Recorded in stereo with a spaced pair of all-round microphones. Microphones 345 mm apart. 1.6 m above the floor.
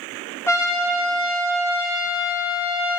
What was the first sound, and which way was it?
A trumpet, 5° left (ahead or behind).